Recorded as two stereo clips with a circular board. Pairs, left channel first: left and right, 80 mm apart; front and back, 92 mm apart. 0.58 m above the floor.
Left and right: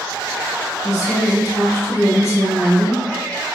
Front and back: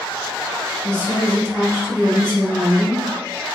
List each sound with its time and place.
0.8 s a woman speaking: 125° left, 1.3 m